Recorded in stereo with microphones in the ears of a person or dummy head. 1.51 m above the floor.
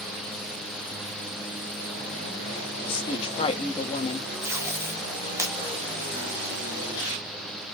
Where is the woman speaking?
30° left (ahead or behind), 1.2 m.